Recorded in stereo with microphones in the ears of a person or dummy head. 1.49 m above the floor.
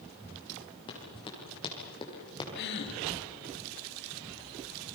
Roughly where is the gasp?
Left.